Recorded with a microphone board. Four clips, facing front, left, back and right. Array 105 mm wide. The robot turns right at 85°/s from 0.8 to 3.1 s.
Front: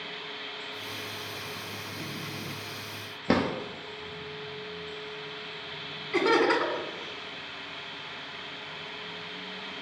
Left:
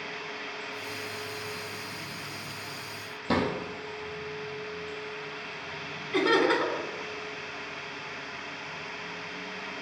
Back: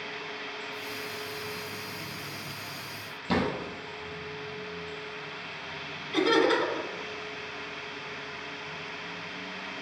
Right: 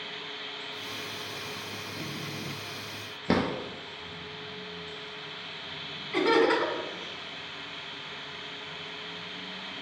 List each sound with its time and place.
3.3 s a drawer: 35° right, 0.8 m
6.1 s laughter: 15° right, 1.2 m